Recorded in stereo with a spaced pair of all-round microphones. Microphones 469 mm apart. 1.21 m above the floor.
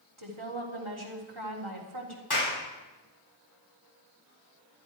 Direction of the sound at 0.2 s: 85° right.